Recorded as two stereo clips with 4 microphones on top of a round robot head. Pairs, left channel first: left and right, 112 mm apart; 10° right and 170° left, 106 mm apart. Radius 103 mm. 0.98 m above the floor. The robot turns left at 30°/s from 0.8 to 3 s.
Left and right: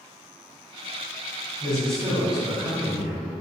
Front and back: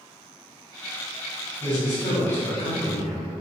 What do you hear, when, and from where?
1.6 s a man speaking: 10° left, 1.8 m; by 3.4 s 30° right, 1.8 m